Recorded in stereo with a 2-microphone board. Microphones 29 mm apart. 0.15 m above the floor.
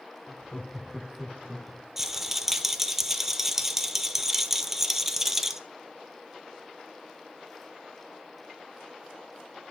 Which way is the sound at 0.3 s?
20° left (ahead or behind).